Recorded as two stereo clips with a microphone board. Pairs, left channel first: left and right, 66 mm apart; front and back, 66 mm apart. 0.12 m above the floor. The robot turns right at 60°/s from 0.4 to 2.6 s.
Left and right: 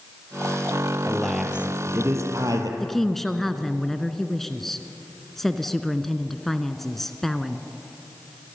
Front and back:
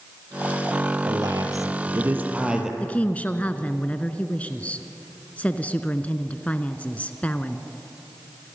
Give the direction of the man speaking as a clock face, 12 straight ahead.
6 o'clock.